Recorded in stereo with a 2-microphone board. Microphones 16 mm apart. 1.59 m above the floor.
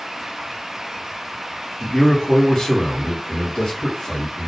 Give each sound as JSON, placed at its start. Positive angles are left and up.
{"t": 1.8, "sound": "a man speaking", "side_deg": 70, "distance_m": 0.9}